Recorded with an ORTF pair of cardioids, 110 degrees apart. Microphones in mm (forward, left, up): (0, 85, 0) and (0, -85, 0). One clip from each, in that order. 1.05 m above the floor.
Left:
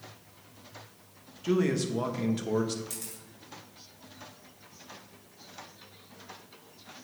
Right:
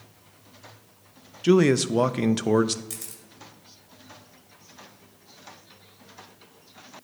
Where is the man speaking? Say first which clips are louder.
Right 9 dB; 50° right, 0.6 m.